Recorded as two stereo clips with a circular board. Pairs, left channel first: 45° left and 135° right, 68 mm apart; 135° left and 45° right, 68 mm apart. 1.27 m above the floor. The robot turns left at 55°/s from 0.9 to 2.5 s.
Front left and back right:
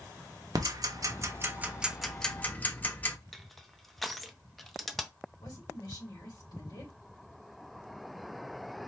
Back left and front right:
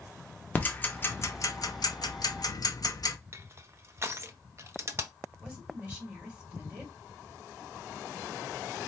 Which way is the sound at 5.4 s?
30° left.